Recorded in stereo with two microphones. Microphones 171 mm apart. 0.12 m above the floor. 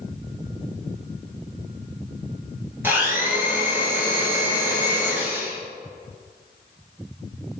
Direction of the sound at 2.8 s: 10° right (ahead or behind).